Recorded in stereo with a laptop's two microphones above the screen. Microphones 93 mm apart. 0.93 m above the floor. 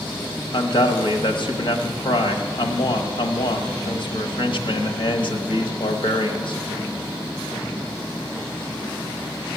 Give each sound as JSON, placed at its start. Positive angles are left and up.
{"t": 0.5, "sound": "a man speaking", "side_deg": 60, "distance_m": 1.1}